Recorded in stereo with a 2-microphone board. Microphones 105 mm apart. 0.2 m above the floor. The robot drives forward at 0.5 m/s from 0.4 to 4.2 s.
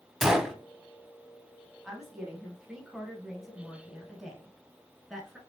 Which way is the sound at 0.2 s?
5° right (ahead or behind).